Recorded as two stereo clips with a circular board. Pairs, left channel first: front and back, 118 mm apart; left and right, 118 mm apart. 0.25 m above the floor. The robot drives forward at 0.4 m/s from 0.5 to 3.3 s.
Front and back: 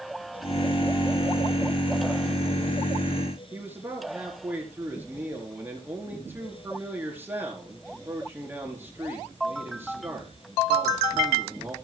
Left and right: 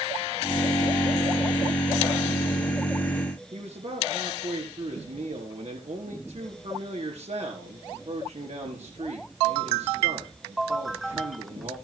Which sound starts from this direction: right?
A man speaking, at 3.5 s.